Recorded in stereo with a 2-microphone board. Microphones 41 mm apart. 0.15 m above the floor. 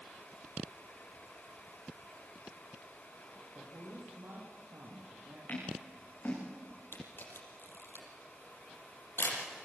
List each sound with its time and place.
3.5 s a man speaking: 75° right (ahead or behind), 5.5 m
5.5 s scissors: 45° left (ahead or behind), 8.5 m
6.9 s a camera shutter: 65° left (ahead or behind), 5 m